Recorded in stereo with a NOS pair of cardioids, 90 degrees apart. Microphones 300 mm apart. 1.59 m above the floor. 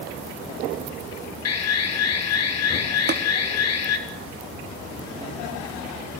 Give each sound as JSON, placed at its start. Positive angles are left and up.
{"t": 1.4, "sound": "an alarm", "azimuth_deg": 60, "distance_m": 3.5}
{"t": 3.1, "sound": "tapping", "azimuth_deg": -35, "distance_m": 3.0}